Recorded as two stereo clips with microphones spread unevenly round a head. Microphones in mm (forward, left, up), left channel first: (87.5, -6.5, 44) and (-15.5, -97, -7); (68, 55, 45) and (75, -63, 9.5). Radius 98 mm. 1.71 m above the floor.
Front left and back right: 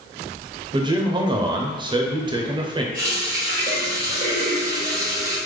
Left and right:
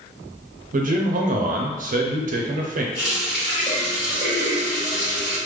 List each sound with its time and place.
0.7 s a man speaking: 75° right, 0.7 m
2.9 s a running tap: 170° left, 1.3 m